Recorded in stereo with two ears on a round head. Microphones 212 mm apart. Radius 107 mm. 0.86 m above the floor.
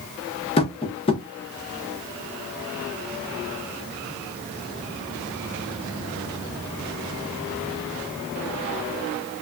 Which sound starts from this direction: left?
Tapping, at 0.6 s.